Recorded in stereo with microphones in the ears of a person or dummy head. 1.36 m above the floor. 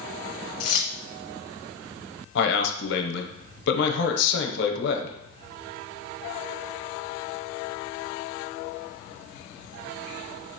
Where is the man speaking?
65° left (ahead or behind), 0.8 m.